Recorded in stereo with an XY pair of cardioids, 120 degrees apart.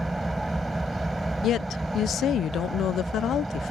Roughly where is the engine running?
Ahead.